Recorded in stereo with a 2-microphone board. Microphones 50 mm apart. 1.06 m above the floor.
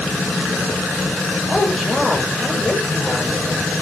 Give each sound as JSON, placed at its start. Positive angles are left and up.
{"t": 1.5, "sound": "a woman speaking", "side_deg": 0, "distance_m": 4.0}